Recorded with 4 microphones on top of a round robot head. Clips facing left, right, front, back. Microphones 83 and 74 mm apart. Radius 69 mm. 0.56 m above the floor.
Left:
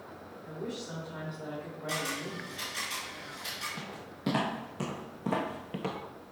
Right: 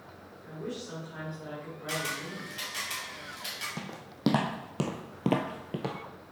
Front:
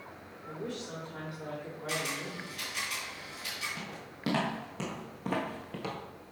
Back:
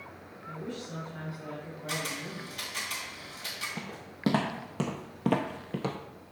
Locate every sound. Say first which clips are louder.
0.4 s a woman speaking: even, even; 10° left, 2 m
1.9 s a camera shutter: right 1 dB, even; 130° right, 2.5 m
3.8 s footsteps: right 1 dB, back 2 dB; 115° right, 1.7 m; by 6.0 s 170° right, 0.5 m